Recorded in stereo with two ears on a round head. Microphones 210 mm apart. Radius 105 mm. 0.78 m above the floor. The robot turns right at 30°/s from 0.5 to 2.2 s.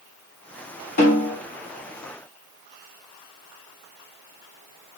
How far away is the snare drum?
About 1.9 m.